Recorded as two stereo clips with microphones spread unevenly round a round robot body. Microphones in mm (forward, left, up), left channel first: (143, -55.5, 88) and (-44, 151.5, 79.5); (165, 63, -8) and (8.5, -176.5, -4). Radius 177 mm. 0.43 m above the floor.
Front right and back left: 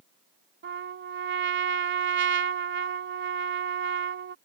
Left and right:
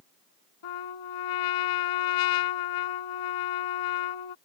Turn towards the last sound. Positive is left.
turn(degrees=80)